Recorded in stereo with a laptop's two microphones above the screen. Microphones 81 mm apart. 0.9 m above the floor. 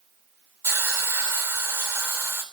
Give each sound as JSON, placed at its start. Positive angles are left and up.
{"t": 0.6, "sound": "a hiss", "side_deg": -30, "distance_m": 3.0}